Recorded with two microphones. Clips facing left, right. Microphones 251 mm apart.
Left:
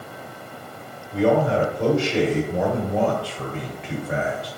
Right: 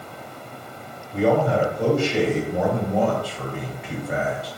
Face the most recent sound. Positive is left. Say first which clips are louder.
# left 1 dB
turn(degrees=5)  # may be behind; listen again after turning